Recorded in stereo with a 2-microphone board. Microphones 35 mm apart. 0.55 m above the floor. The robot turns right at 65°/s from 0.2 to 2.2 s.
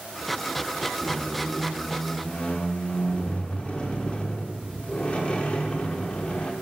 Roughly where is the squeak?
Ahead right.